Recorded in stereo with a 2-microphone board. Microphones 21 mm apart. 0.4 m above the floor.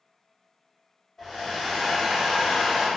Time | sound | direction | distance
1.2 | a hair dryer | 20° left (ahead or behind) | 1.0 m